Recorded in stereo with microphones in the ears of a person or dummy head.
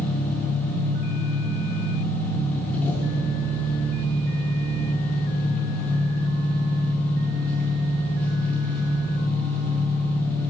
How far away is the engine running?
About 5 m.